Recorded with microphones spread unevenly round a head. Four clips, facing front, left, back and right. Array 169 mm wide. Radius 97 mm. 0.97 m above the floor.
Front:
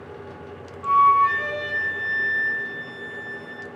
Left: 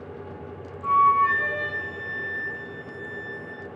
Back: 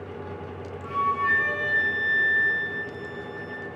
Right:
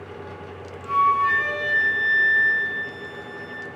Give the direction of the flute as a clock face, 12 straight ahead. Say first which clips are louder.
Left 1 dB, front 9 dB; 10 o'clock.